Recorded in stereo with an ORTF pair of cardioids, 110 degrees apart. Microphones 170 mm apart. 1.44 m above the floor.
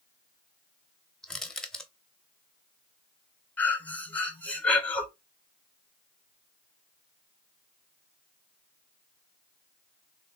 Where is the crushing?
5° left, 0.7 m.